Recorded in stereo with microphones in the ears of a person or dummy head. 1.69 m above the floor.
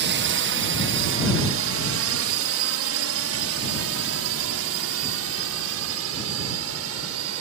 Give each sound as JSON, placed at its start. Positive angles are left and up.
{"t": 0.0, "sound": "a drone", "side_deg": -55}